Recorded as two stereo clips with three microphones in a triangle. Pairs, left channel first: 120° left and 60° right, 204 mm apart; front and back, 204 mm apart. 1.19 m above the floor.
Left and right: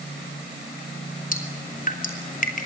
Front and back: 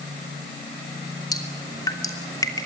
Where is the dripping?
75° left, 3 m.